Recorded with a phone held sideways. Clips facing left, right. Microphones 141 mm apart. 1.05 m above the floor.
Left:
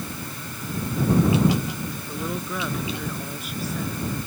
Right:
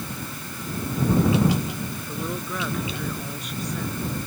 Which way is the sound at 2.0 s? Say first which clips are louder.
Even; 5° left (ahead or behind).